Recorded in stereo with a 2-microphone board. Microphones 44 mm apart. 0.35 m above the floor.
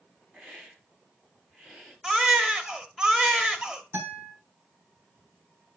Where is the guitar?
55° right (ahead or behind), 3 m.